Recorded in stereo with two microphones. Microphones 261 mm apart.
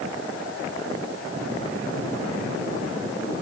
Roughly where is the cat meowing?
No cat meowing in this recording.